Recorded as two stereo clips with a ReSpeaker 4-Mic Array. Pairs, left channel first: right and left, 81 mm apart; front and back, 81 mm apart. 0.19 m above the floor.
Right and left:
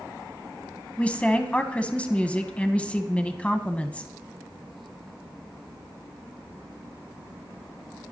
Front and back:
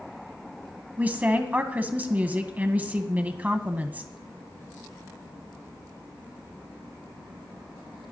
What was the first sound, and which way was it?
A woman speaking, 140° right.